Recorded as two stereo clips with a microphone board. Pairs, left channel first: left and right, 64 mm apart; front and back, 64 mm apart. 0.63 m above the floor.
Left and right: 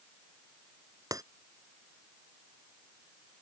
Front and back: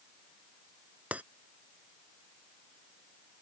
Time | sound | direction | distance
1.1 | breaking glass | 110° right | ?